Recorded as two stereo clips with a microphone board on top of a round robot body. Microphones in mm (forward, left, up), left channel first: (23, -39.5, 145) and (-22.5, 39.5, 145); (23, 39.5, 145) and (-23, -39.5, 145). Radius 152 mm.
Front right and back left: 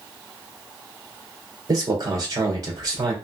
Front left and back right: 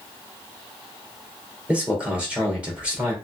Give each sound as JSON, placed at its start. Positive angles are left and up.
{"t": 1.7, "sound": "a man speaking", "azimuth_deg": 165, "distance_m": 2.5}